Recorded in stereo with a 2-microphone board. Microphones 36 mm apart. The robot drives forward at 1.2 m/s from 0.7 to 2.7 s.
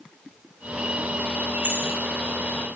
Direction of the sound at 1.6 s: 70° right (ahead or behind).